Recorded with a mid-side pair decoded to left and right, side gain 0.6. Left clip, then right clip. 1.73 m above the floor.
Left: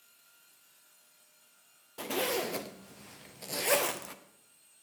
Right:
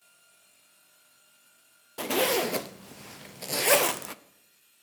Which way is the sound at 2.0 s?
35° right.